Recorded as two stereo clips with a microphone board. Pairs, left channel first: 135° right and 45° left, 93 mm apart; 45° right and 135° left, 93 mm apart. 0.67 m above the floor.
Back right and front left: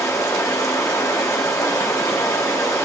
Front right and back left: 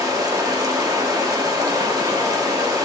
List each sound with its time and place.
0.0 s running water: 175° left, 0.8 m